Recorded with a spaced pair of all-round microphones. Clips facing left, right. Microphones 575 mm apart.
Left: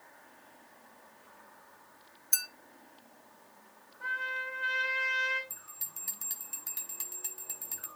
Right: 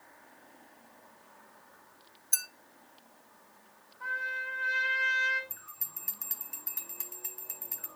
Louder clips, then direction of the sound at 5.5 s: Right 1 dB; 60° left (ahead or behind).